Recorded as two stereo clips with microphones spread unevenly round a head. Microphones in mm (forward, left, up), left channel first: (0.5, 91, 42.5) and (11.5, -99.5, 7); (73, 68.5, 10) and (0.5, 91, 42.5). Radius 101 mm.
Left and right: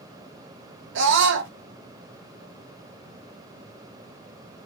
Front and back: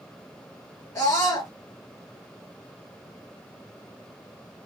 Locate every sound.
0.9 s a scream: 75° right, 0.7 m